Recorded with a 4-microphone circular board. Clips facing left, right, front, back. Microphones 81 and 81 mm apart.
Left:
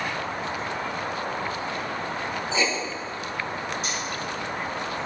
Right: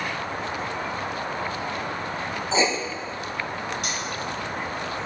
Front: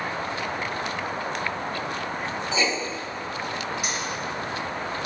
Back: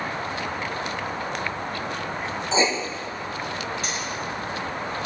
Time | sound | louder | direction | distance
2.5 | writing | right 4 dB, back 4 dB | 140° right | 0.8 m
3.8 | cutlery clinking | even, even | 80° right | 3.5 m